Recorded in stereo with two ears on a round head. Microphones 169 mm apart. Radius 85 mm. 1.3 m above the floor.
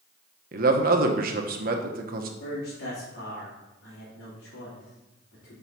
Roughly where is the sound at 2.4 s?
Left.